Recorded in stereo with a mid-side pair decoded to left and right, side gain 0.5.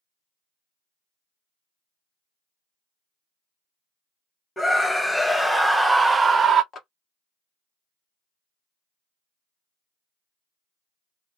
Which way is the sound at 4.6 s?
20° left.